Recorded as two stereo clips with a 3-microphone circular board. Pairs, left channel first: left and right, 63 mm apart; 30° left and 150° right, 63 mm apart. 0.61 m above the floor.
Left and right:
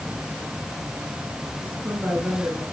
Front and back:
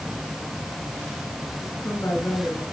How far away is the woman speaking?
About 6.5 m.